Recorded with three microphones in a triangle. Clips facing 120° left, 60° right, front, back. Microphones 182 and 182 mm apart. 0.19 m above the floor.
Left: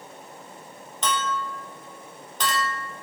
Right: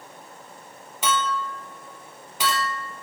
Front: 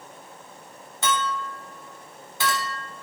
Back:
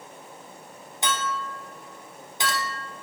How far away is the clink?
About 0.8 m.